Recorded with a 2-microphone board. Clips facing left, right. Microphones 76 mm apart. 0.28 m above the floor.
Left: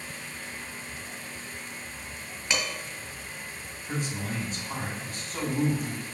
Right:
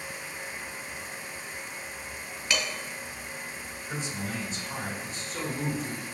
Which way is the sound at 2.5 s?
20° left (ahead or behind).